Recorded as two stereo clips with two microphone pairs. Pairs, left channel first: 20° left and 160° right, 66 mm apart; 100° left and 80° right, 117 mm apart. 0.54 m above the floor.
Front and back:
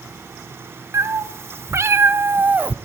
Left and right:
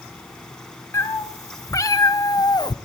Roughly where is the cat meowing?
Behind.